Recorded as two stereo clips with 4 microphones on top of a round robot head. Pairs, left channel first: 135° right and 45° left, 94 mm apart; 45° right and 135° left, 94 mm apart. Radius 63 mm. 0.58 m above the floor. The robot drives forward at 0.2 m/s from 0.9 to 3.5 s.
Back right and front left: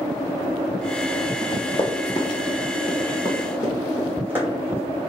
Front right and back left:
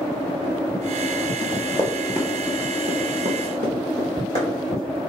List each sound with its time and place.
1.4 s running footsteps: 90° right, 0.8 m; by 4.9 s 115° left, 1.7 m